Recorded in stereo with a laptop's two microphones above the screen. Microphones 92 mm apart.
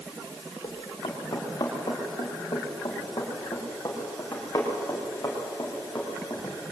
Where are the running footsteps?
55° left (ahead or behind), 6.5 m; by 6.5 s 30° left (ahead or behind), 8 m.